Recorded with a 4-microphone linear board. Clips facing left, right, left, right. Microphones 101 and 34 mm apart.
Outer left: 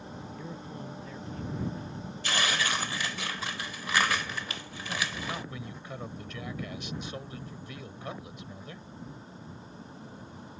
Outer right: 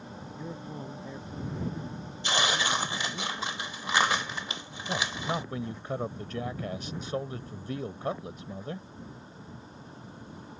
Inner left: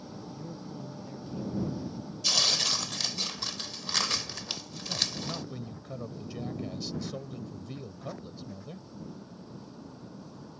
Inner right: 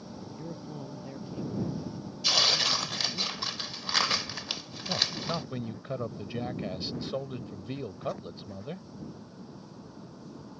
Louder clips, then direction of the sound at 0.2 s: Outer right 3 dB, inner right 2 dB; 20° right (ahead or behind).